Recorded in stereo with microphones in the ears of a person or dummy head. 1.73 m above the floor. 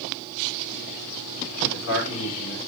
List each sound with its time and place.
1.6 s a man speaking: 75° left (ahead or behind), 5 m